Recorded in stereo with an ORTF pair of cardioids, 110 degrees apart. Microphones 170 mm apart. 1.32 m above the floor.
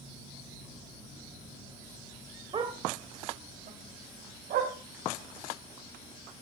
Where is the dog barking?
30° right, 2.5 m; by 4.7 s 65° right, 4 m.